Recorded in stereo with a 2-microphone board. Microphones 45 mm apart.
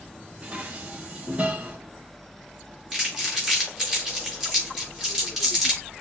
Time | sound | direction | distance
0.4 | dishes clattering | 30° right (ahead or behind) | 0.9 m
2.9 | crumpling | centre (ahead or behind) | 4.5 m